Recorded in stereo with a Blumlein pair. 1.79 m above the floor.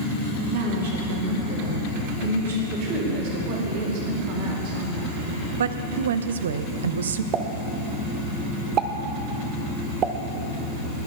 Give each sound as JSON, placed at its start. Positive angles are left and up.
{"t": 0.5, "sound": "a woman speaking", "azimuth_deg": -60, "distance_m": 4.5}
{"t": 2.7, "sound": "a woman speaking", "azimuth_deg": -45, "distance_m": 4.0}
{"t": 5.6, "sound": "a woman speaking", "azimuth_deg": -65, "distance_m": 0.8}
{"t": 7.3, "sound": "a pop", "azimuth_deg": -30, "distance_m": 1.0}